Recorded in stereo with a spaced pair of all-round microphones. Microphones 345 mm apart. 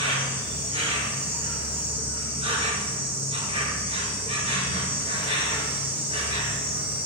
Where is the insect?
15° right (ahead or behind), 1.6 m.